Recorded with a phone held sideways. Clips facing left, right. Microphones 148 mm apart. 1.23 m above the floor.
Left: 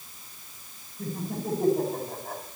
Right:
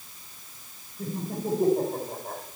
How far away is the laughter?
About 4.5 m.